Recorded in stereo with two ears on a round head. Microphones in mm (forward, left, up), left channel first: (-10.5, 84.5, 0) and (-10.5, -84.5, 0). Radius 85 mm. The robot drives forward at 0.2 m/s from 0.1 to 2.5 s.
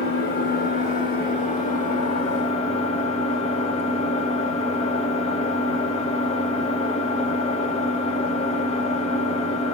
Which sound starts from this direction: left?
An engine running, at 0.0 s.